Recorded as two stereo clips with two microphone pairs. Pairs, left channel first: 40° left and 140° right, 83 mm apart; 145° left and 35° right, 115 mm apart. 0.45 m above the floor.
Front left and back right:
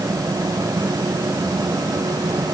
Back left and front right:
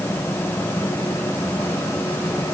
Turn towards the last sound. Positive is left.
No sound to turn to.